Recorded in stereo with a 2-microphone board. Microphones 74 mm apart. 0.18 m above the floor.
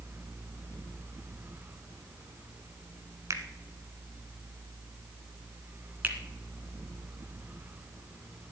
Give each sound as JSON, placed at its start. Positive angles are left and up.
{"t": 3.3, "sound": "a finger snap", "side_deg": -45, "distance_m": 1.4}
{"t": 6.0, "sound": "a finger snap", "side_deg": -20, "distance_m": 1.9}